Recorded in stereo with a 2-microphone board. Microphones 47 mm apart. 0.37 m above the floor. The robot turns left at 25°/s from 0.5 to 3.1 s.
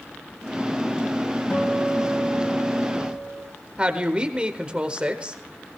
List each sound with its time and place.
1.5 s a guitar: 160° left, 6.5 m; by 3.5 s 120° left, 6.5 m
3.8 s a woman speaking: 25° right (ahead or behind), 1.1 m